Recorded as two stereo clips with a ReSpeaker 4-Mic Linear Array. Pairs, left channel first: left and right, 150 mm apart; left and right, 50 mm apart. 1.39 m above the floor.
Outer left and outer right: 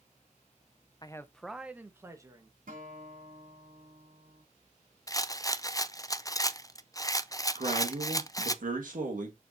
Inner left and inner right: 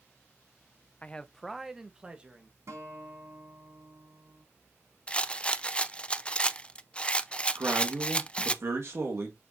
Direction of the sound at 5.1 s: 25° left (ahead or behind).